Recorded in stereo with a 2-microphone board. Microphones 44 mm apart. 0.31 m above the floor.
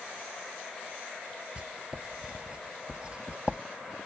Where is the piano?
I don't hear a piano.